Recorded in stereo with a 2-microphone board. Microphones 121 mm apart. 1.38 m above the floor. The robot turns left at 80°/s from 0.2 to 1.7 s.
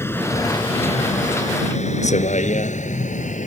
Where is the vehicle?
20° left (ahead or behind); by 3.5 s 90° left.